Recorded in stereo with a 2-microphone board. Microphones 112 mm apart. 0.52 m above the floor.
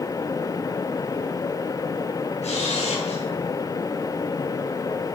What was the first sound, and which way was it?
A camera shutter, 75° left (ahead or behind).